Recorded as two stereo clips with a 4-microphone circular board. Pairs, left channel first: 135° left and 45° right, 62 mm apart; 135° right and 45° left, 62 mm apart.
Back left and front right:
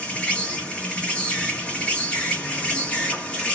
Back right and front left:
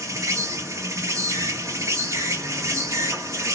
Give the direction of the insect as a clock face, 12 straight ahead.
10 o'clock.